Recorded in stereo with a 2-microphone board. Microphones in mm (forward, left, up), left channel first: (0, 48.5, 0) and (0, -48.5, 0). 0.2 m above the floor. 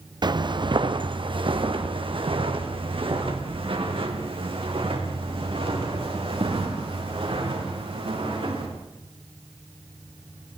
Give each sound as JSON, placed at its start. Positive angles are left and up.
{"t": 0.2, "sound": "footsteps", "side_deg": -45, "distance_m": 1.2}